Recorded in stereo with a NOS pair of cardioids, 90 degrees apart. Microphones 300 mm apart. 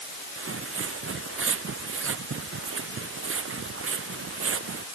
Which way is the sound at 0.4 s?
45° right.